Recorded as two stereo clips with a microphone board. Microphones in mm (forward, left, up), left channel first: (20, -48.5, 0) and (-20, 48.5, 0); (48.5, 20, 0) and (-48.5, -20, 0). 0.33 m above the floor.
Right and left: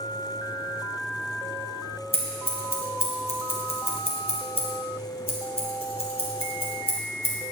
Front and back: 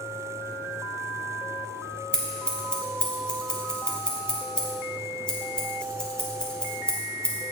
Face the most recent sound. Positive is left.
turn(degrees=-60)